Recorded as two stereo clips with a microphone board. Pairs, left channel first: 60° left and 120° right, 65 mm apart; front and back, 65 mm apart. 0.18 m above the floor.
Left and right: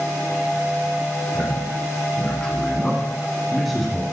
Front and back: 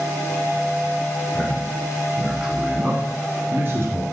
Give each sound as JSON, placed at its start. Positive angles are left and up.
{"t": 1.3, "sound": "a man speaking", "azimuth_deg": 45, "distance_m": 1.2}